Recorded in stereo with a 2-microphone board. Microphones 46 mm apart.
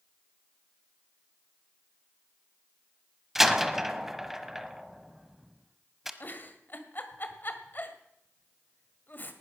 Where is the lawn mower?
No lawn mower in this recording.